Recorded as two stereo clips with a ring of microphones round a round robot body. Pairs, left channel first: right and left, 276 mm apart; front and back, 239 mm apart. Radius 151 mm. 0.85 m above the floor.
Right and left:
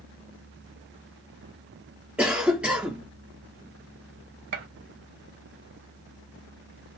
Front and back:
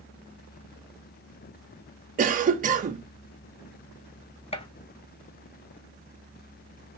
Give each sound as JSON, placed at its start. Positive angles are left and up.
{"t": 2.2, "sound": "a cough", "azimuth_deg": 170, "distance_m": 0.5}
{"t": 4.5, "sound": "a gunshot", "azimuth_deg": 65, "distance_m": 0.7}